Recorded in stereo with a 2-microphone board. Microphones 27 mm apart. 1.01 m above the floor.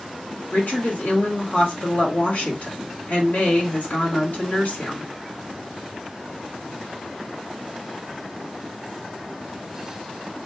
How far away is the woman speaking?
About 1.4 m.